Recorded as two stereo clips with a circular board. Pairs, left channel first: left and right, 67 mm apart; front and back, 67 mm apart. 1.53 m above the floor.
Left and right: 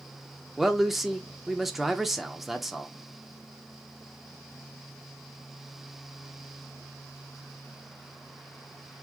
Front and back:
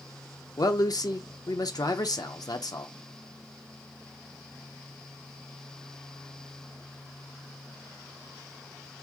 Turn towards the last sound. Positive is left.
turn(degrees=0)